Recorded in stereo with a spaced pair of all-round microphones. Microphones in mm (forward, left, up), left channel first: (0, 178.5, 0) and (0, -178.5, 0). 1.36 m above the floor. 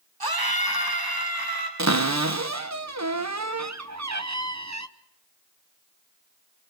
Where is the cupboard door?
50° right (ahead or behind), 0.9 m.